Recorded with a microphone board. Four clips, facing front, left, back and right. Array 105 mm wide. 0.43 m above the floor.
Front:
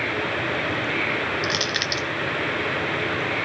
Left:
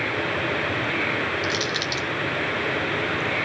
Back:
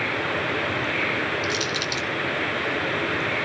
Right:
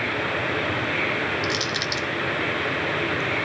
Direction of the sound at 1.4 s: 5° right.